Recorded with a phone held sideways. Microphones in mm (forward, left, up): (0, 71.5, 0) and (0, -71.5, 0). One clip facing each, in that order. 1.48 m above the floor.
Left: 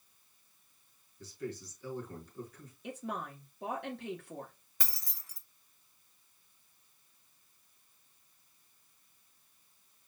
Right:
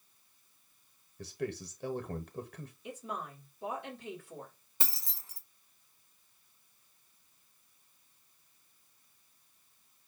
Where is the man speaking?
70° right (ahead or behind), 0.8 m.